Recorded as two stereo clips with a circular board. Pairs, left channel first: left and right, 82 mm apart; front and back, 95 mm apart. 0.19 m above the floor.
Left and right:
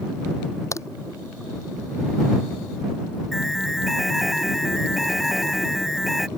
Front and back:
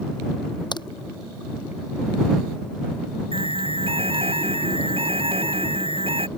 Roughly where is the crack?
Ahead left.